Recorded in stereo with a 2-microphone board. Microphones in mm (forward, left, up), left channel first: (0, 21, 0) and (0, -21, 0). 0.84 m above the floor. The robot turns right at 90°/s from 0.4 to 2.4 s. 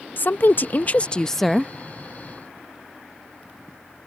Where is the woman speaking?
80° left; by 1.7 s 160° right.